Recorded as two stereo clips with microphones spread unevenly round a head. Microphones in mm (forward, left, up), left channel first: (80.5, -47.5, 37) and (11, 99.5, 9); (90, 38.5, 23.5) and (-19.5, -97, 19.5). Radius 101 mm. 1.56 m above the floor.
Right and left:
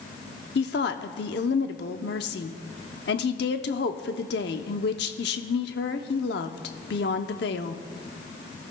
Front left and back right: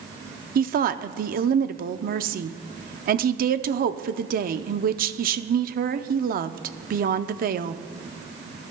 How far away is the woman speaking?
About 0.6 m.